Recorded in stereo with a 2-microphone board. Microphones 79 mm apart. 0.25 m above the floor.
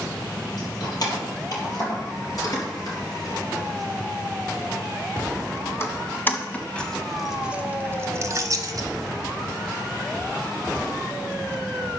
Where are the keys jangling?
55° left (ahead or behind), 5.5 m; by 8.9 s 55° right (ahead or behind), 1.4 m.